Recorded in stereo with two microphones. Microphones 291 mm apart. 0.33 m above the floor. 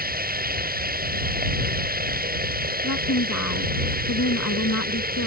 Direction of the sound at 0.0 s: 30° right (ahead or behind).